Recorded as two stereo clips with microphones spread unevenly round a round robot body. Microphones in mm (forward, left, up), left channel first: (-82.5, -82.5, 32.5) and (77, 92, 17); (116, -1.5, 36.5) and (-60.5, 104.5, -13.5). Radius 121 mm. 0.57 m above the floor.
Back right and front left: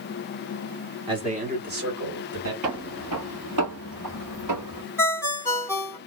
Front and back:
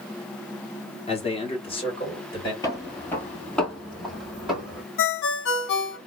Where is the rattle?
No rattle in this recording.